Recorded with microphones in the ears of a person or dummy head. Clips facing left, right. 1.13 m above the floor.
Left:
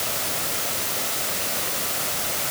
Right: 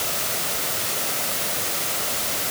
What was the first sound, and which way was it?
Only background noise.